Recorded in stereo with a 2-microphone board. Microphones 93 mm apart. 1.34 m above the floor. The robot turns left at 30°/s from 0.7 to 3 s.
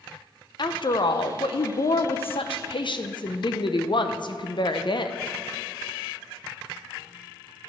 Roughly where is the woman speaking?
Behind left.